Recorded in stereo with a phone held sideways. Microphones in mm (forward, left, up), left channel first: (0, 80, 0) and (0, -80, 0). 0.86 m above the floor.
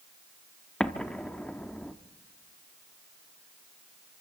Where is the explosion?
5° left (ahead or behind), 0.8 m.